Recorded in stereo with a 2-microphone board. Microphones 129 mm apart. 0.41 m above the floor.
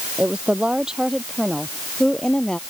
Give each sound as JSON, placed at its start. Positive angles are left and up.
{"t": 0.2, "sound": "a woman speaking", "side_deg": -10}